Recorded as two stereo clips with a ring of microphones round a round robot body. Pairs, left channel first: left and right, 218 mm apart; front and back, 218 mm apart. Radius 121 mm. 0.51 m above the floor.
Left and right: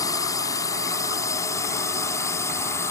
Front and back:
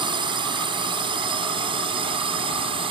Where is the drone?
140° left; by 2.9 s 150° left.